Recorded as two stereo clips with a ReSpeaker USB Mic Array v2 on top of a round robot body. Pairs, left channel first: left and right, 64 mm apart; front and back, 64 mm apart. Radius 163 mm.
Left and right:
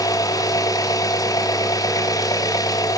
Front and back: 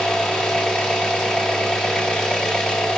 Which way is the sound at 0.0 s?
80° left.